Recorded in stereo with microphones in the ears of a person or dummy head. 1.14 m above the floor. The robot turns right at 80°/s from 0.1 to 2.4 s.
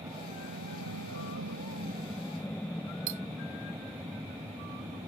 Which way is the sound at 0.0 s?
15° right (ahead or behind).